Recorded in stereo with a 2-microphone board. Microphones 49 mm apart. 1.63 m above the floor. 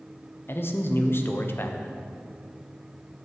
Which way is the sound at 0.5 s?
50° left (ahead or behind).